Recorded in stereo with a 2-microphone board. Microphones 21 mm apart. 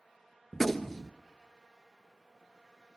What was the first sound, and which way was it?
A gunshot, 10° left (ahead or behind).